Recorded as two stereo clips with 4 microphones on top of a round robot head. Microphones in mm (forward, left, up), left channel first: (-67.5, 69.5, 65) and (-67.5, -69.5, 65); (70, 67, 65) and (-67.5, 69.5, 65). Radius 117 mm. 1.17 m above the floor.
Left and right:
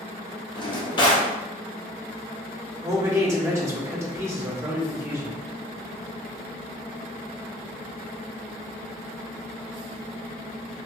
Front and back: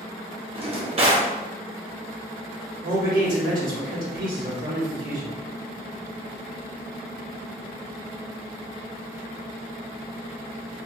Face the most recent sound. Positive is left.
turn(degrees=-160)